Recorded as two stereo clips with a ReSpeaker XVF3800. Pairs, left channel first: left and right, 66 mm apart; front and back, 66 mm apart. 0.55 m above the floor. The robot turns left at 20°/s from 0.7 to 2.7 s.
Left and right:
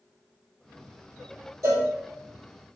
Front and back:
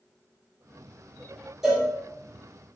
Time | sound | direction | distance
1.6 | a cowbell | 90° right | 1.2 m